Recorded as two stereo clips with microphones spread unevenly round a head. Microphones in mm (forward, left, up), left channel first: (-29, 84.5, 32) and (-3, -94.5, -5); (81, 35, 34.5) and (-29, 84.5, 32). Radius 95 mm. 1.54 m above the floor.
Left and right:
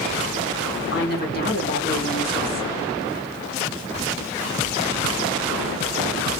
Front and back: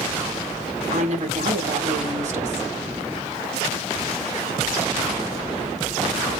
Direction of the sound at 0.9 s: 135° left.